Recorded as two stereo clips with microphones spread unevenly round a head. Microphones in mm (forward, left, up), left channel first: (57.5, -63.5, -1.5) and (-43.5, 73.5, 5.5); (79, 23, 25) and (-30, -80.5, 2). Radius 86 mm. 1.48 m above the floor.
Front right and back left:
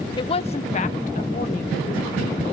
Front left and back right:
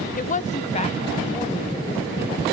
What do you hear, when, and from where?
0.2 s a woman speaking: 10° left, 0.7 m; by 2.4 s 15° right, 2.5 m